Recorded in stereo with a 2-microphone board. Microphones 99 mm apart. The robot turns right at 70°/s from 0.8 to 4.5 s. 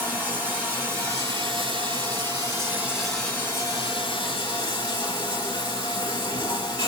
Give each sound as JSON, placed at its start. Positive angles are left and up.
{"t": 0.0, "sound": "running water", "azimuth_deg": -155, "distance_m": 1.5}